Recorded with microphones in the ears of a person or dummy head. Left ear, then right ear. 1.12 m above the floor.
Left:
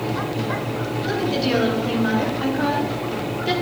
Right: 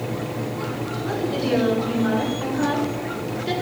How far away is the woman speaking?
About 3.5 m.